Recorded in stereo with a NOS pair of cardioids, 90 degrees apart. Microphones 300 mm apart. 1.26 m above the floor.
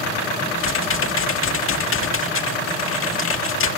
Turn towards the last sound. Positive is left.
turn(degrees=45)